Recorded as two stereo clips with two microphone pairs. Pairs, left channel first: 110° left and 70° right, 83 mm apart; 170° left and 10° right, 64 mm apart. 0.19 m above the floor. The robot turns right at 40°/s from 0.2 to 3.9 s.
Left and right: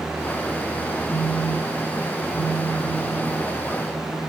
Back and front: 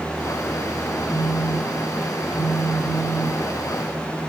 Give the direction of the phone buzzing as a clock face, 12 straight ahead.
9 o'clock.